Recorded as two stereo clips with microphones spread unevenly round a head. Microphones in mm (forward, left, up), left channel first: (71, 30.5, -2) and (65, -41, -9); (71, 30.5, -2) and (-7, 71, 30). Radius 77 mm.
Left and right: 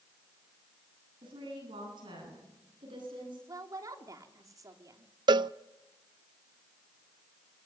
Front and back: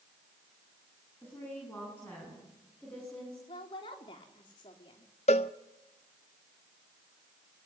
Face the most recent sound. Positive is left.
turn(degrees=-80)